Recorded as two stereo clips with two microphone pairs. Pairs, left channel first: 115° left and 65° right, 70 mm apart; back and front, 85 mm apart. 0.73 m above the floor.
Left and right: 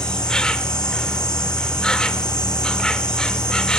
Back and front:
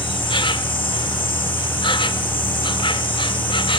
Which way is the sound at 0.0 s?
170° right.